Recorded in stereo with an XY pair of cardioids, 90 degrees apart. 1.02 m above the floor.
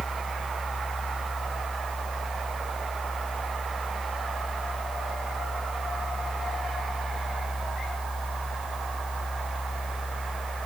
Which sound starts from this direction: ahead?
A fan, at 0.0 s.